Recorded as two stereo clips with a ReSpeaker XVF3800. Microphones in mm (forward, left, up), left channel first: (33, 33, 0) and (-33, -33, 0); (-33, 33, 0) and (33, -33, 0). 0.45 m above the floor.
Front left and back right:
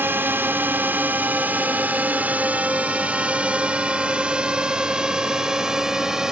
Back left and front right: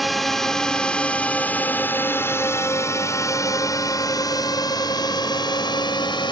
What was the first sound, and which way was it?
A drone, 135° right.